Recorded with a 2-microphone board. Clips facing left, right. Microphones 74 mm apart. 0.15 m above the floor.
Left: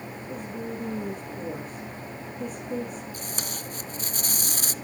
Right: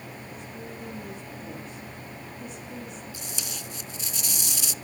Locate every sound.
0.3 s a woman speaking: 50° left (ahead or behind), 8 m
3.1 s tape being pulled: 50° left (ahead or behind), 0.8 m